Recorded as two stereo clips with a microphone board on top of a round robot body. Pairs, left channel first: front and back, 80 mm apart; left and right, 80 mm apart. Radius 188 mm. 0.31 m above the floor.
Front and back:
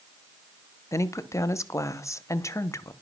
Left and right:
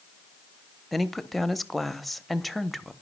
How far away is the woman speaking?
About 0.9 m.